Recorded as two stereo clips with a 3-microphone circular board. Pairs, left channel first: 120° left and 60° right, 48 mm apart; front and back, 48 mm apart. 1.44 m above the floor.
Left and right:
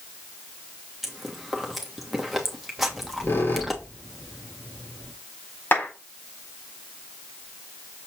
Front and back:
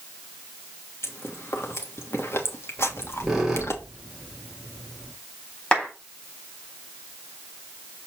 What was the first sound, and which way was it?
Chewing, 25° left.